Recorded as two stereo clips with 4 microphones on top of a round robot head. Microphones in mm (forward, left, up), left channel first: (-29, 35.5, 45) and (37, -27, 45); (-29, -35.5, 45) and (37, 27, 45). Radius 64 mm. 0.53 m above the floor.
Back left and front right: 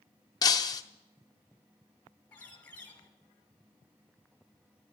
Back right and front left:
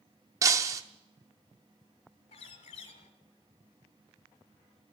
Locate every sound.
0.4 s breaking glass: 95° left, 0.6 m
2.3 s a bird: 150° right, 1.2 m